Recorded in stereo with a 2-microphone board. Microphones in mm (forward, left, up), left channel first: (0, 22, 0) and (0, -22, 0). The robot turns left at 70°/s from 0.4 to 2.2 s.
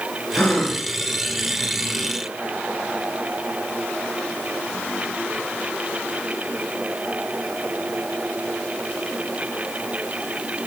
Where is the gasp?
30° left (ahead or behind), 0.9 m; by 0.8 s 5° left (ahead or behind), 0.9 m.